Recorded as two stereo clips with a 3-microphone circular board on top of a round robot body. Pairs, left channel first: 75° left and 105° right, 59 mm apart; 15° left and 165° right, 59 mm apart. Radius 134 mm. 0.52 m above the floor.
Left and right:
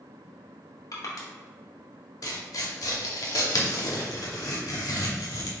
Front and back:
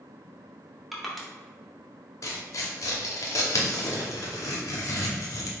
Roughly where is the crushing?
Left.